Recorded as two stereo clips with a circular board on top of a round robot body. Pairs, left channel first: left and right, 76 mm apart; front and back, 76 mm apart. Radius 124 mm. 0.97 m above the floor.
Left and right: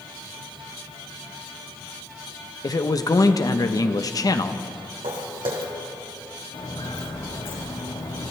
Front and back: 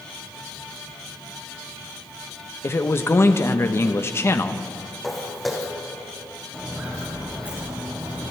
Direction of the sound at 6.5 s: 105° left.